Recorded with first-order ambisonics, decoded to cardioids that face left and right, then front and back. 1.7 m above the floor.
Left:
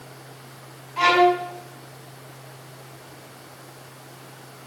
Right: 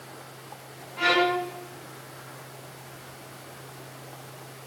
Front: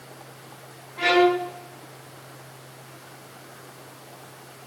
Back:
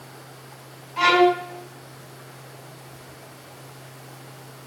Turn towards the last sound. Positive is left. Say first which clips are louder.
# left 5 dB, back 2 dB
turn(degrees=135)